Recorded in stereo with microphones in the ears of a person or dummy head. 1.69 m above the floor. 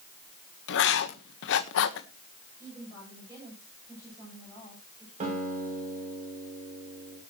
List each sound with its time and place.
0.7 s writing: 70° left (ahead or behind), 1.3 m
2.6 s a woman speaking: 10° right (ahead or behind), 10 m
5.2 s a guitar: 40° right (ahead or behind), 6.5 m